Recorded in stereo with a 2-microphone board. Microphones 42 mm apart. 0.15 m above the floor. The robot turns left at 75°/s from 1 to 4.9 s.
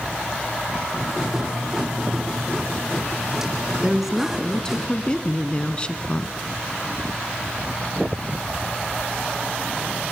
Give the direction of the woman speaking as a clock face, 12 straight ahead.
5 o'clock.